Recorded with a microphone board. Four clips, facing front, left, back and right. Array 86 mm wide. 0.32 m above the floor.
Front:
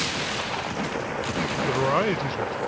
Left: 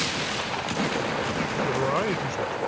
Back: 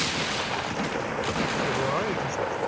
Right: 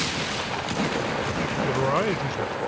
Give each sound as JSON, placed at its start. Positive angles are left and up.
{"t": 1.6, "sound": "a man speaking", "azimuth_deg": -20}